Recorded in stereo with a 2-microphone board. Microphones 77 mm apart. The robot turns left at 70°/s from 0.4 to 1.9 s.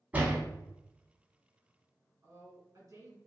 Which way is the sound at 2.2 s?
50° right (ahead or behind).